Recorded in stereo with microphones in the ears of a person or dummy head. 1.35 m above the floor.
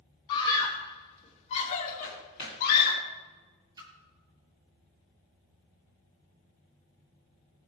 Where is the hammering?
25° right (ahead or behind), 3 m.